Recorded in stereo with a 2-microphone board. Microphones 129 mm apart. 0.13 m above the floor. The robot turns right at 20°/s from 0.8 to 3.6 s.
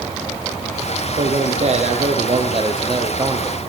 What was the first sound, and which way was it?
A man speaking, 75° right.